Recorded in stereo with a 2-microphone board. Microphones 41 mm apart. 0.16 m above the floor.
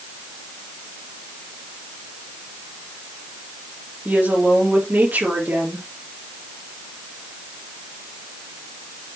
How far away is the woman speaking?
About 3.5 m.